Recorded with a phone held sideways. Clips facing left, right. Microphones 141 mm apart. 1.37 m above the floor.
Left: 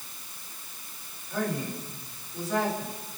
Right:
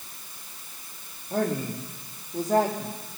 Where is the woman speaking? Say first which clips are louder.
Right 4 dB; 45° right (ahead or behind), 3.5 m.